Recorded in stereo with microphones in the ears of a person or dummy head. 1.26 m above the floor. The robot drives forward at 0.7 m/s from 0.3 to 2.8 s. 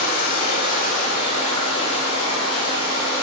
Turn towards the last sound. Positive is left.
turn(degrees=20)  # may be behind; listen again after turning